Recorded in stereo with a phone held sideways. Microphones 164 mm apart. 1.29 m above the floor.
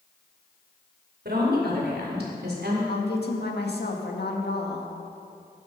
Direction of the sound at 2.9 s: 85° left.